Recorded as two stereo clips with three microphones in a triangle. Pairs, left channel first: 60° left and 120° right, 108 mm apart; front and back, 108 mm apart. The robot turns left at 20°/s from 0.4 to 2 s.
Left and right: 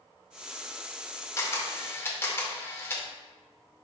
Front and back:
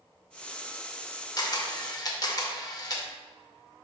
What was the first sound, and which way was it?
A camera shutter, 20° left.